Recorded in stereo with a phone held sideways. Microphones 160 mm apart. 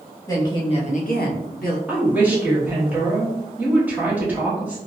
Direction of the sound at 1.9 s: 10° right (ahead or behind).